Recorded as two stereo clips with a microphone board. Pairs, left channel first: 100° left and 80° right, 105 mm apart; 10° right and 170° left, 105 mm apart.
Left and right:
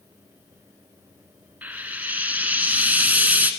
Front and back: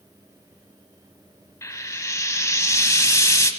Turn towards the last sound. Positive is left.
turn(degrees=-25)